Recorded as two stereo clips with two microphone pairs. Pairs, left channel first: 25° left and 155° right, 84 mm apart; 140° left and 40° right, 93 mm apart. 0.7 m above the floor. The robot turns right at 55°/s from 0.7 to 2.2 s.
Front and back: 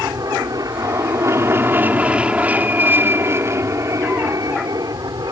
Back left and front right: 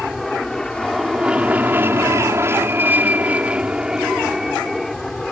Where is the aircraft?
130° right; by 5.3 s 140° right.